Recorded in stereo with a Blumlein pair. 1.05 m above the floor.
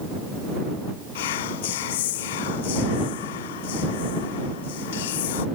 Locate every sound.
1.1 s whispering: 55° left